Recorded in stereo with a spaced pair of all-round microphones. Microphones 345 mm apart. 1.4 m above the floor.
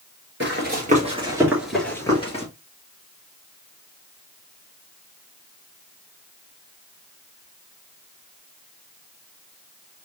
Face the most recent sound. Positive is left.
turn(degrees=20)  # may be behind; listen again after turning